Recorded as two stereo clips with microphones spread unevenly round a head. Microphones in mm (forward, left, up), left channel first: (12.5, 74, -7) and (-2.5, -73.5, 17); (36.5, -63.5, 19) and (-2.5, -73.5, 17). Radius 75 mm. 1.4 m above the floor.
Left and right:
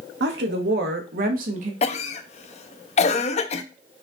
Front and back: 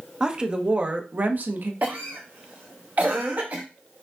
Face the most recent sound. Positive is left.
turn(degrees=130)